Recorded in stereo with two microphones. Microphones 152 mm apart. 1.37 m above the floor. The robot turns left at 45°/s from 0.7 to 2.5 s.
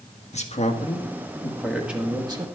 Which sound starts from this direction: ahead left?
A man speaking, at 0.3 s.